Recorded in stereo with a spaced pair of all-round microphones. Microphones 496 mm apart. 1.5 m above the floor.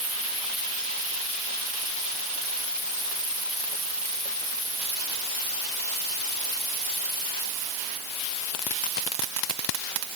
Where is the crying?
I don't hear crying.